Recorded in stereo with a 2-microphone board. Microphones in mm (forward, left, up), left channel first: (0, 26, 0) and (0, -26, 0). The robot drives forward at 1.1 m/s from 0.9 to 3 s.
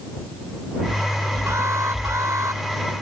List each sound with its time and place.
1.5 s an alarm: 75° right (ahead or behind); by 2.6 s 80° right